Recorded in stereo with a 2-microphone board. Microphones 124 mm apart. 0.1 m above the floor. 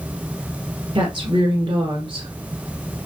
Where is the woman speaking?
45° right (ahead or behind), 2.0 m.